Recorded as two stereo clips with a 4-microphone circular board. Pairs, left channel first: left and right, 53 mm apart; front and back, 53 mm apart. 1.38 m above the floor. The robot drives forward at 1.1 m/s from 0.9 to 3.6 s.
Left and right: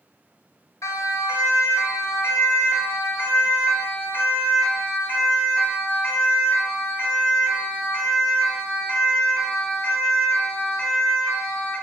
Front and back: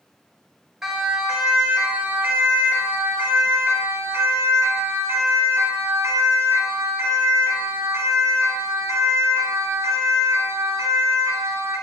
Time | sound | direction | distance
0.8 | a siren | 100° left | 6 m